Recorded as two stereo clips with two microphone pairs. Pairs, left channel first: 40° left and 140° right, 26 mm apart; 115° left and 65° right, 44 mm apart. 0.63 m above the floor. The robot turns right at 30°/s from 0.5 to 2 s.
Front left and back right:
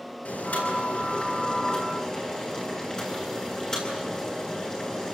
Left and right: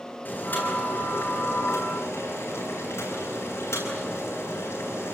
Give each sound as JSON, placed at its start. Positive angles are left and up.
{"t": 0.2, "sound": "boiling", "azimuth_deg": 65, "distance_m": 9.0}